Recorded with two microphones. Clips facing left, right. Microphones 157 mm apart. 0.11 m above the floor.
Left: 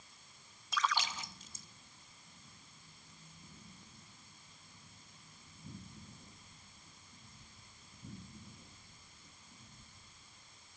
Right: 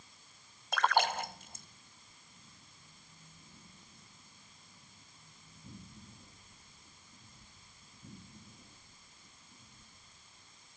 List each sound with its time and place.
0.7 s a splash: 60° right (ahead or behind)